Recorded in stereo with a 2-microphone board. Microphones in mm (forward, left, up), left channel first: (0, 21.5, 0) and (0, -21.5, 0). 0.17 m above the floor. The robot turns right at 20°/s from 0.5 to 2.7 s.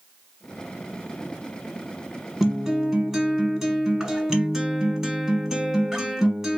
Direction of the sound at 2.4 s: 10° right (ahead or behind).